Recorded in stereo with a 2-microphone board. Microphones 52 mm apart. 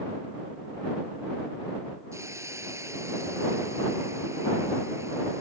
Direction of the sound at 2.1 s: 80° right.